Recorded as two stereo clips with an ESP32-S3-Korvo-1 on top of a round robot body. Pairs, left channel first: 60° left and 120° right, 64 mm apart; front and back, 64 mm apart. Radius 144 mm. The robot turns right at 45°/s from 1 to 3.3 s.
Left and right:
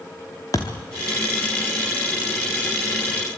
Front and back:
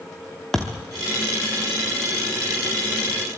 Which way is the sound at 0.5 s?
80° left.